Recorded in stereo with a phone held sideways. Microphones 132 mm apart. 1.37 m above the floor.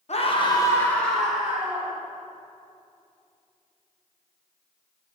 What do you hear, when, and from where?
0.1 s a scream: 55° left (ahead or behind), 1.1 m; by 1.9 s 10° right (ahead or behind), 2 m